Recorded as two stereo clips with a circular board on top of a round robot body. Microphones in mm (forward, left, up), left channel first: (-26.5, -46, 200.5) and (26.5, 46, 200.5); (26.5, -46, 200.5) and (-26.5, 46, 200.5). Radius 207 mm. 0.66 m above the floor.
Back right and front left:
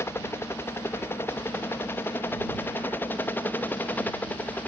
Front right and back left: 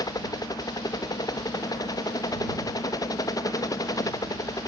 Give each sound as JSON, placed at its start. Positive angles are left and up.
{"t": 0.0, "sound": "a helicopter", "azimuth_deg": -70}